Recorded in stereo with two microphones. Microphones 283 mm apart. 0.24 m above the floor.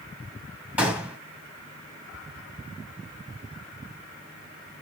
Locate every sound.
0.8 s a gunshot: 5° right (ahead or behind), 1.4 m